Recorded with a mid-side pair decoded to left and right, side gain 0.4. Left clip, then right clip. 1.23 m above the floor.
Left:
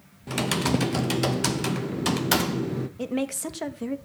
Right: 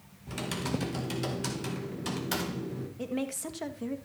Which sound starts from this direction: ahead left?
A woman speaking, at 3.0 s.